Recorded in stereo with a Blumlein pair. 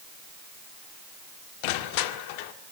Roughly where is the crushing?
Ahead left.